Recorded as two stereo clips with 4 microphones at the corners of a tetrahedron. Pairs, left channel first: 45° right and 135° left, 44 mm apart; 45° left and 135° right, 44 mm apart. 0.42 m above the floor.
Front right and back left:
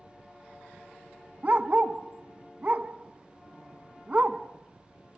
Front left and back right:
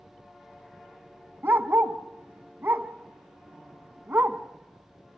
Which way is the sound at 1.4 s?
165° right.